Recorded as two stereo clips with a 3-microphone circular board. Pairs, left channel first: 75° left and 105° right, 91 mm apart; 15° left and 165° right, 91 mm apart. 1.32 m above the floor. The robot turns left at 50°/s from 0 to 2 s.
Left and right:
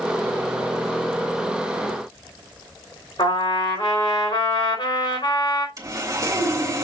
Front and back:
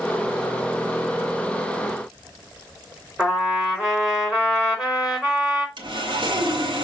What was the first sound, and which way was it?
A trumpet, 110° left.